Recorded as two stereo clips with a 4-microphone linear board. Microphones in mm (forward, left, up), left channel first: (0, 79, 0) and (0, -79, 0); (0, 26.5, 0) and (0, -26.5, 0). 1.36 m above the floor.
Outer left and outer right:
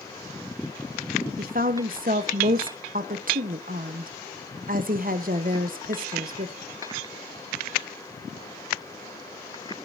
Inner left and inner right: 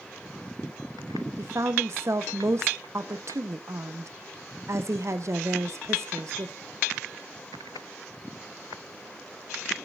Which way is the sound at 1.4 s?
55° right (ahead or behind).